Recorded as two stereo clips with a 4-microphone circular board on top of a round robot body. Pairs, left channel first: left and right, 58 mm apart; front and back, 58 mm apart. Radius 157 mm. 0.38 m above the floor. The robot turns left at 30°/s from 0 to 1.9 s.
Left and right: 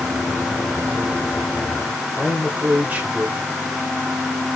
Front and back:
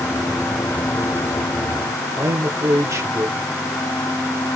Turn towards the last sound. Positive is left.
turn(degrees=-155)